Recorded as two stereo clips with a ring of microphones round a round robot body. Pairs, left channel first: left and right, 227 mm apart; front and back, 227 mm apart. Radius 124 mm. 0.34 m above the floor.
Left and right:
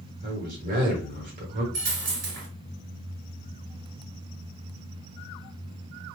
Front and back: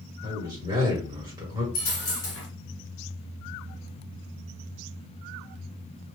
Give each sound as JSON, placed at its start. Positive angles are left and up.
{"t": 0.2, "sound": "a man speaking", "azimuth_deg": -115, "distance_m": 1.4}
{"t": 1.7, "sound": "a dropped coin", "azimuth_deg": -55, "distance_m": 1.8}